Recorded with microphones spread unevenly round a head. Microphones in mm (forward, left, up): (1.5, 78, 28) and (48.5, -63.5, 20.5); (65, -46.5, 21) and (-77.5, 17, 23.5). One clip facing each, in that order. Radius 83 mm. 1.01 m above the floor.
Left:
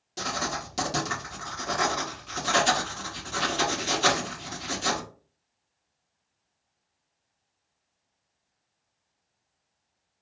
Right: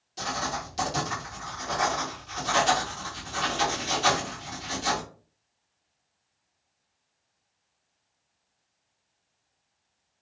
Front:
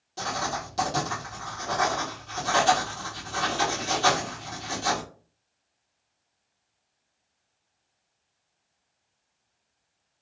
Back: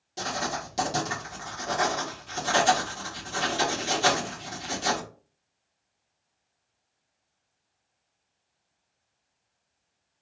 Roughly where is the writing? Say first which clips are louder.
Even, front 1 dB; left.